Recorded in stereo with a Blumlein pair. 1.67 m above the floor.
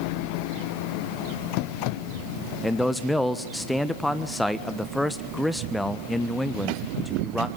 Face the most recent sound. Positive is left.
turn(degrees=5)